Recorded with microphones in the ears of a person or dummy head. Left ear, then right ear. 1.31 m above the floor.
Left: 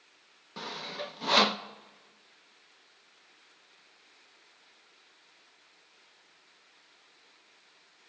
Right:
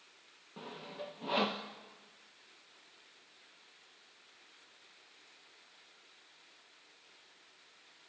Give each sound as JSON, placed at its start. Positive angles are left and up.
{"t": 0.6, "sound": "sawing", "side_deg": 55, "distance_m": 1.0}